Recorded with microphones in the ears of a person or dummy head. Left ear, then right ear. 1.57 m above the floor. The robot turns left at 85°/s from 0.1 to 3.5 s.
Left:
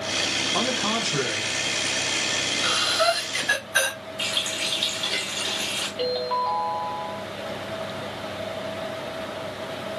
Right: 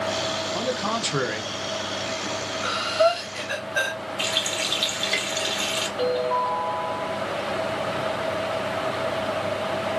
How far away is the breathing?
About 2.5 m.